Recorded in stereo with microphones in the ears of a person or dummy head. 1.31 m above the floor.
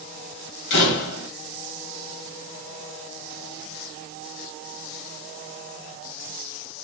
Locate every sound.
0.7 s a door slam: 65° left (ahead or behind), 1.3 m